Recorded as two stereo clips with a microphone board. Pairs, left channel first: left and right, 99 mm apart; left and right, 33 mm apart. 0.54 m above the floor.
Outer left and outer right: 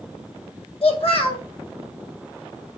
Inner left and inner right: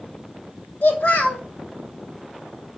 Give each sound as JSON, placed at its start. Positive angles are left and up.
{"t": 0.8, "sound": "a child speaking", "side_deg": 65, "distance_m": 1.3}